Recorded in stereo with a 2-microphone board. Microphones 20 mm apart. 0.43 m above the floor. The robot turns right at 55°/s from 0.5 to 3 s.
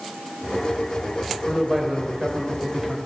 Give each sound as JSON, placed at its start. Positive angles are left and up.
{"t": 1.4, "sound": "a man speaking", "azimuth_deg": -130, "distance_m": 2.5}